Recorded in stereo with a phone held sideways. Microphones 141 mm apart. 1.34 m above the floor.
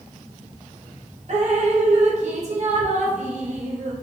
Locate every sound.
1.3 s dripping: 55° right (ahead or behind), 0.8 m